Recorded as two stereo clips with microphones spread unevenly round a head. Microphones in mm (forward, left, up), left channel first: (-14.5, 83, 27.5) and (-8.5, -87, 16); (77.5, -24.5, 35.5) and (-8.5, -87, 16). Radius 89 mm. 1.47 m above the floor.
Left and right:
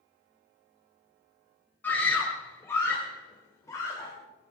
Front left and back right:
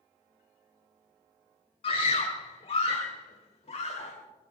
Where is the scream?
10° left, 1.8 m; by 4.1 s 20° left, 3 m.